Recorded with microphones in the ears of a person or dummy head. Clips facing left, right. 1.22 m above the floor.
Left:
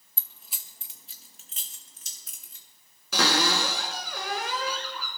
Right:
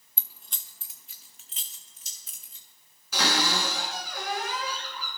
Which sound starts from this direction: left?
A cupboard door, at 3.1 s.